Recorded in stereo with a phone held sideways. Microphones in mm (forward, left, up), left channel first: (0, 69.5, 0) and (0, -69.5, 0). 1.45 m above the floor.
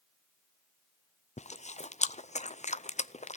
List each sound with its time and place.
1.4 s chewing: 55° left (ahead or behind), 0.5 m